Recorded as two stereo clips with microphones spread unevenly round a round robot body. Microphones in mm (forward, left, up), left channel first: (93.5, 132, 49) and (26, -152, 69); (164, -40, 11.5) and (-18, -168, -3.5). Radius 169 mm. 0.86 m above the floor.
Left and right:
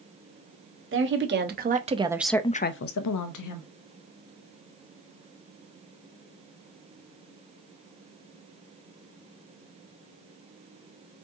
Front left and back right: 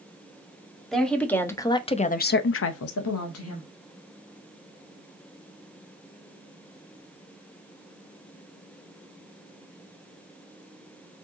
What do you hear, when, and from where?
0.9 s a woman speaking: 55° right, 1.7 m; by 3.7 s 75° left, 1.2 m